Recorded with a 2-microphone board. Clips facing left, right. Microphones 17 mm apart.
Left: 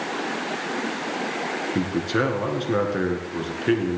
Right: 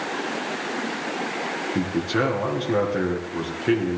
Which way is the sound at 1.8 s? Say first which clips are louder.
Even; 10° left (ahead or behind).